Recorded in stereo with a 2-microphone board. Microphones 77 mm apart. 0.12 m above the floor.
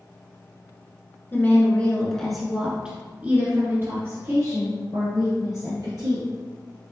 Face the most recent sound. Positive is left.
turn(degrees=-60)  # may be behind; listen again after turning